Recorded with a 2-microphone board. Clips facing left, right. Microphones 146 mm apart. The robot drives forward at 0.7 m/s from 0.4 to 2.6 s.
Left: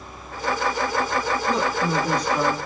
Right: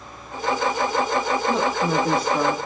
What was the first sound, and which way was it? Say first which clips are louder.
A woman speaking: right 1 dB; 5° right (ahead or behind).